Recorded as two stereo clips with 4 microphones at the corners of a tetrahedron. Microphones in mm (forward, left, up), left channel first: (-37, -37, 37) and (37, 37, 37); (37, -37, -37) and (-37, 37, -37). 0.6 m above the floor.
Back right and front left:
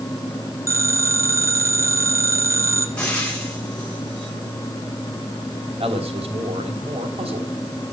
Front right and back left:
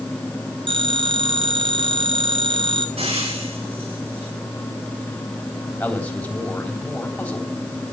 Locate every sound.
0.7 s a phone ringing: 105° left, 1.7 m
3.0 s frying: 145° left, 8 m
5.8 s a man speaking: 30° left, 3 m